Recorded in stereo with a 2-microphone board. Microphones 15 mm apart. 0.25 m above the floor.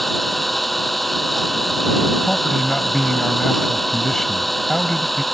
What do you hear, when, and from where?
0.0 s an engine running: 5° left (ahead or behind)
2.2 s a man speaking: 25° left (ahead or behind)